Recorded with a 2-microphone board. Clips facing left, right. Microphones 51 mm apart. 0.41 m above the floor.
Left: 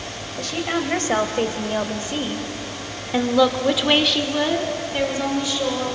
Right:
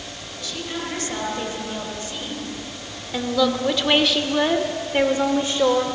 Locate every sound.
0.4 s a woman speaking: 55° left (ahead or behind), 2.5 m; by 5.8 s 40° right (ahead or behind), 1.4 m